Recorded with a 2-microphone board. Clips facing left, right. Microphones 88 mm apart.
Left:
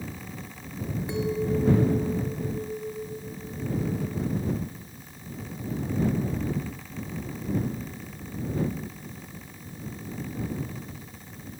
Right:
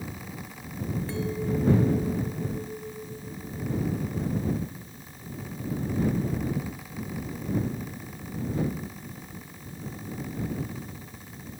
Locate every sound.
1.1 s a clink: 20° left (ahead or behind)